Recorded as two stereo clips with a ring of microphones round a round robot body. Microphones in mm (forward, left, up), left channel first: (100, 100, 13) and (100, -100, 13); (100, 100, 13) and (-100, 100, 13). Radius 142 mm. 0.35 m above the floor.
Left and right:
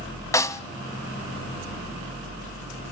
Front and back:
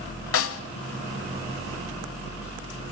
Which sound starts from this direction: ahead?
A snare drum, at 0.3 s.